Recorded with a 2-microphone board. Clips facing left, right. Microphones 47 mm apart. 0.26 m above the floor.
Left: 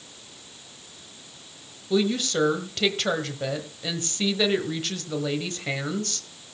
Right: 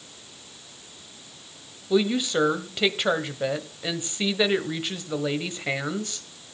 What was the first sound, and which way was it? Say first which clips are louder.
A woman speaking: right 1 dB; 15° right (ahead or behind).